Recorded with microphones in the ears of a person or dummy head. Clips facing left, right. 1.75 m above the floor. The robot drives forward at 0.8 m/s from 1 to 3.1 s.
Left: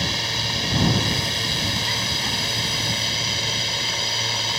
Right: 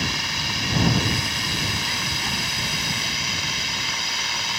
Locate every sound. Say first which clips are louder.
0.0 s a drone: left 1 dB; 25° left (ahead or behind)